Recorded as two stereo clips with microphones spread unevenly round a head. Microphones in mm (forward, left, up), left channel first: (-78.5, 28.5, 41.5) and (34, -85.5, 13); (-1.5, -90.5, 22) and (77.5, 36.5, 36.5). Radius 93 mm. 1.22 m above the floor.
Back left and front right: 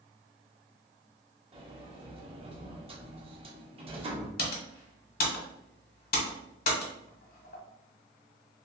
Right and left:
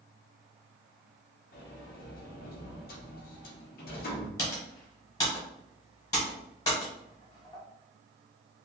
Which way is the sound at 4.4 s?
170° left.